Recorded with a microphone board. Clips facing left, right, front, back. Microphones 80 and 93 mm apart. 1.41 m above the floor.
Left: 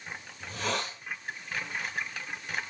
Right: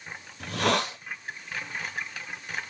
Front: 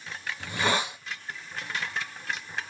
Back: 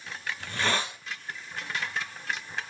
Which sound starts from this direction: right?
A hiss, at 0.4 s.